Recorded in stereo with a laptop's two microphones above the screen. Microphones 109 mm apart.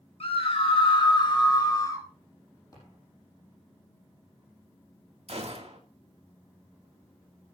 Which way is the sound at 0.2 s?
65° left (ahead or behind).